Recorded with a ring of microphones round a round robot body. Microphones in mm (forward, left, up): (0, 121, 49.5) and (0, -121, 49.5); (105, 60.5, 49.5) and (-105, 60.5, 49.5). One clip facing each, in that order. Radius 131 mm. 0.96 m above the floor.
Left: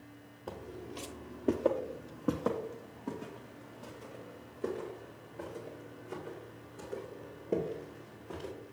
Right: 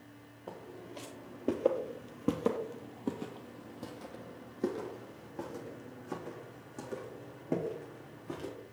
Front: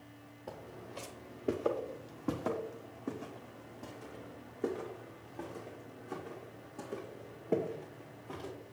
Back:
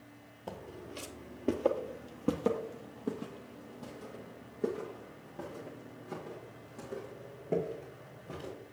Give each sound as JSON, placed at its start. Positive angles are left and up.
{"t": 0.5, "sound": "footsteps", "azimuth_deg": 150, "distance_m": 1.2}